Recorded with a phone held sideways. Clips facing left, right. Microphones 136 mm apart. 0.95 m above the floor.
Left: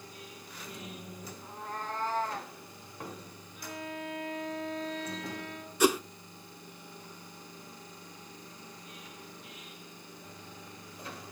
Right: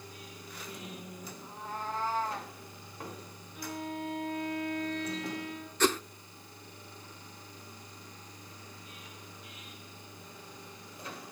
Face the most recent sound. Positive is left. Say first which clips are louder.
# left 3 dB
turn(degrees=10)  # may be behind; listen again after turning